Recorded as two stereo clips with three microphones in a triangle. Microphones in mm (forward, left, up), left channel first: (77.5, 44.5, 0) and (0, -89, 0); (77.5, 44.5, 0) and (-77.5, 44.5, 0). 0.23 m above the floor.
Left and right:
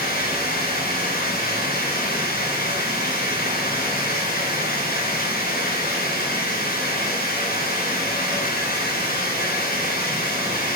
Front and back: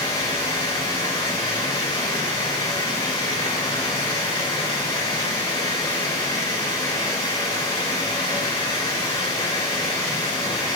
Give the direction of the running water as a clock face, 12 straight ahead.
10 o'clock.